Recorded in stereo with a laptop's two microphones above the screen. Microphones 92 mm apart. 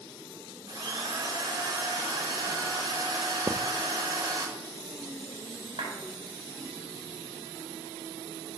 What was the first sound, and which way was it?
A drill, 50° right (ahead or behind).